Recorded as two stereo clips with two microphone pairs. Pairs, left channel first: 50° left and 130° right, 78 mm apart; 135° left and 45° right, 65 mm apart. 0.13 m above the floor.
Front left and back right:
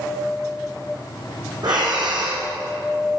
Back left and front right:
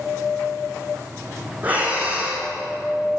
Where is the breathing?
105° right, 5 m.